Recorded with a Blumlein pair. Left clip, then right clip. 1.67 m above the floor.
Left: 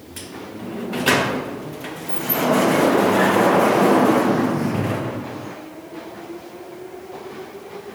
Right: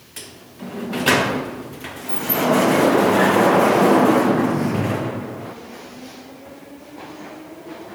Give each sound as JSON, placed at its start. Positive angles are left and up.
{"t": 0.2, "sound": "a sliding door", "azimuth_deg": -5}